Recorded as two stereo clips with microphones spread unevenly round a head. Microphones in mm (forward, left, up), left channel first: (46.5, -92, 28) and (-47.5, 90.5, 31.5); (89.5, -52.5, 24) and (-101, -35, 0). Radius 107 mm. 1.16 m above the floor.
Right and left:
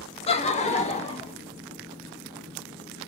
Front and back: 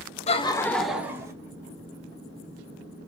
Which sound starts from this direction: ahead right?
Laughter, at 0.3 s.